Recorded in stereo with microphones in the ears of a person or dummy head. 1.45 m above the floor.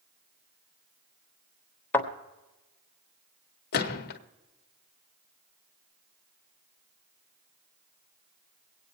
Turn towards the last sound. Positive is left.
turn(degrees=50)  # may be behind; listen again after turning